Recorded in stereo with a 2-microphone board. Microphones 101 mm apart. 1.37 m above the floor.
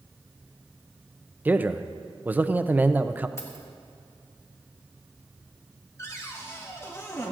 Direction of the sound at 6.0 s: 30° left (ahead or behind).